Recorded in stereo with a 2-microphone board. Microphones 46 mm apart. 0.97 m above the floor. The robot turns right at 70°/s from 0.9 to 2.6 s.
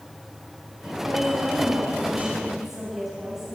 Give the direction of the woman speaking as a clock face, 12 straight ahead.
4 o'clock.